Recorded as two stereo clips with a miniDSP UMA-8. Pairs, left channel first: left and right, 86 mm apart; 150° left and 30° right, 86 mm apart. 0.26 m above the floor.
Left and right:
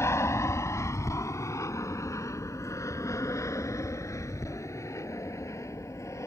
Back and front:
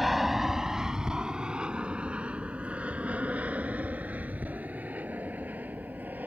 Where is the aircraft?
55° left; by 6.3 s 40° left.